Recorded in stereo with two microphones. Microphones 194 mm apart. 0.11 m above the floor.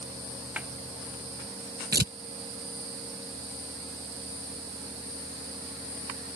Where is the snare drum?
10° right (ahead or behind).